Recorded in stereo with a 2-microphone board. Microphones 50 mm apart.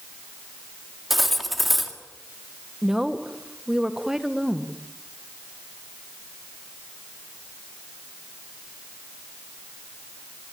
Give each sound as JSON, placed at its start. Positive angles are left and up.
{"t": 1.1, "sound": "cutlery clinking", "side_deg": 0, "distance_m": 2.0}
{"t": 2.8, "sound": "a woman speaking", "side_deg": -10, "distance_m": 1.6}